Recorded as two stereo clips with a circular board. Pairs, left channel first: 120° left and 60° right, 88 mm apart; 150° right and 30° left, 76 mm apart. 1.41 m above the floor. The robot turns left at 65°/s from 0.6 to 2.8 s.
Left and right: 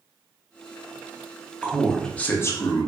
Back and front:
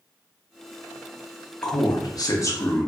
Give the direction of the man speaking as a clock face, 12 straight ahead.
4 o'clock.